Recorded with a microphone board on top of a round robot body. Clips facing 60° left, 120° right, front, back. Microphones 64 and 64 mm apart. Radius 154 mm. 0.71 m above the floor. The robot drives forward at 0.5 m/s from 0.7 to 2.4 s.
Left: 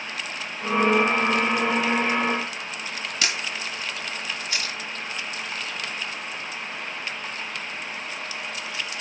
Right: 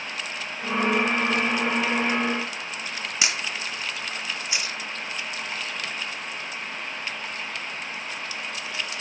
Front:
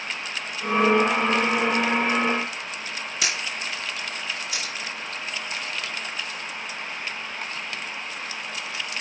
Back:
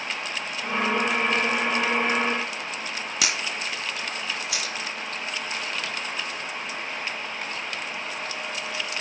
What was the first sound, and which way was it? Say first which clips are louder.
A camera shutter: even, even; 165° left.